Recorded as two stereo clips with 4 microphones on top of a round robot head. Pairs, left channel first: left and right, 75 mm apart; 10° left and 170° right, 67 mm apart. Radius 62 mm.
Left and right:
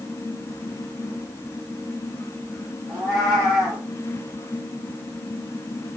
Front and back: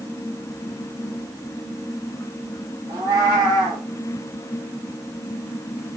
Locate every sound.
2.9 s a cat meowing: 155° right, 1.7 m